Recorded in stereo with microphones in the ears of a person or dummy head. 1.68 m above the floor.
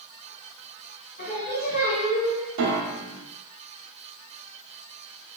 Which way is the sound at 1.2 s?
50° left (ahead or behind).